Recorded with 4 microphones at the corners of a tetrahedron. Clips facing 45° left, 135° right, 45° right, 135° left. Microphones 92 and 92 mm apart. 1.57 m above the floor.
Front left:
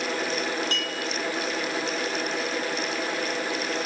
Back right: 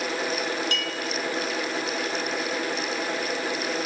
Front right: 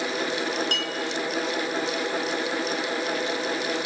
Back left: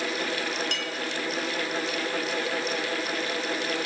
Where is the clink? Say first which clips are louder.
Back right 1 dB, front right 3 dB; 5° right, 0.7 m.